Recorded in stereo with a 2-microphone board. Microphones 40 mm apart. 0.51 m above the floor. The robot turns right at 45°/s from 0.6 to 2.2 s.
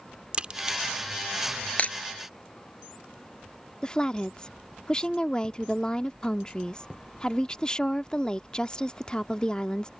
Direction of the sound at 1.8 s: 35° left (ahead or behind).